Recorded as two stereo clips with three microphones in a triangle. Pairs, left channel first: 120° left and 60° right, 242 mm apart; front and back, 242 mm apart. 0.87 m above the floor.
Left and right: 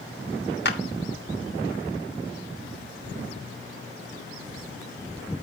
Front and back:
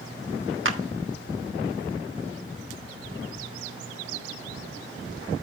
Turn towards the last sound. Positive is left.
turn(degrees=155)